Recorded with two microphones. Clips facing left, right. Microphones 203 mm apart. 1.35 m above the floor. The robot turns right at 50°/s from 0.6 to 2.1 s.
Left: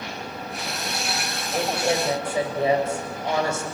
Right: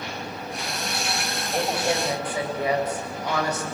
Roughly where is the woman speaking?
Centre.